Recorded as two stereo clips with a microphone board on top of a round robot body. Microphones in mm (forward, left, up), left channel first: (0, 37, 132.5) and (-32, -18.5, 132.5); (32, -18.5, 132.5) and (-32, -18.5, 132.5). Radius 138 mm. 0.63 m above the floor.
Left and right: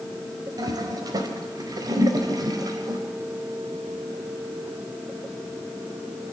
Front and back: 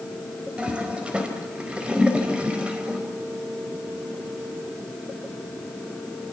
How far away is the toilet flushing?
About 4.5 m.